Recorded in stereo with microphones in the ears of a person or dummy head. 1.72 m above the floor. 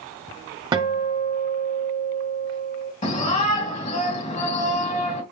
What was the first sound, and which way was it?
A guitar, 25° right (ahead or behind).